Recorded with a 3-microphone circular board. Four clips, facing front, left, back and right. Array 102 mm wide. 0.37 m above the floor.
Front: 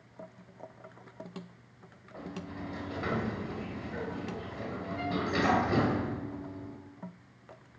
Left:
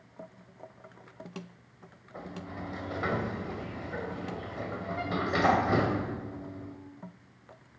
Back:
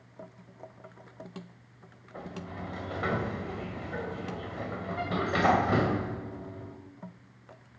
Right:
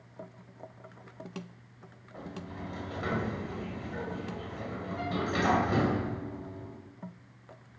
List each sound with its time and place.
2.1 s a sliding door: 140° left, 1.5 m